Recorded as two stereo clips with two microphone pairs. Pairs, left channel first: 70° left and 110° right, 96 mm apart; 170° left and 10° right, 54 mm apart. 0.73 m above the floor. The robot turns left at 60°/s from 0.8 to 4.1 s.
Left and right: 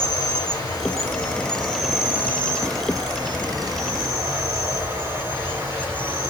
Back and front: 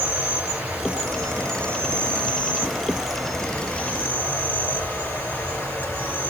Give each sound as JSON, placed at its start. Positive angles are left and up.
{"t": 0.0, "sound": "an insect", "azimuth_deg": 35, "distance_m": 2.0}